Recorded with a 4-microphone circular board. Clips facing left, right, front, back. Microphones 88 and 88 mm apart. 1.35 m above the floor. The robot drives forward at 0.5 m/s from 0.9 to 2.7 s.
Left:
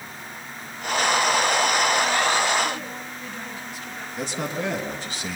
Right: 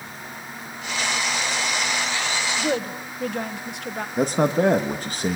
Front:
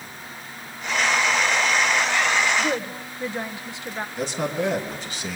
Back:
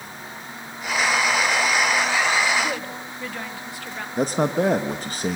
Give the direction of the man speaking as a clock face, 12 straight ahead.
4 o'clock.